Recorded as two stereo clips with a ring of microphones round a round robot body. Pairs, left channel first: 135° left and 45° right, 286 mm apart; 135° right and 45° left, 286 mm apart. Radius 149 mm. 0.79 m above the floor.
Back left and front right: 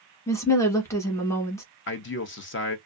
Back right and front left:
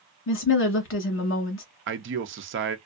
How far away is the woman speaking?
About 1.1 m.